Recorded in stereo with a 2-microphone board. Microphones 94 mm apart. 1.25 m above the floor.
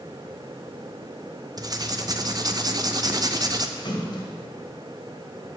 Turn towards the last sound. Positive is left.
turn(degrees=55)  # may be behind; listen again after turning